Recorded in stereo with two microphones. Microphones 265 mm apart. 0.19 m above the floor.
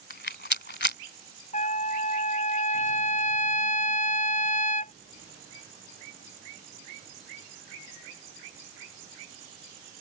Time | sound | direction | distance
0.1 | a rattle | 40° left (ahead or behind) | ?
1.5 | a trumpet | 30° left (ahead or behind) | ?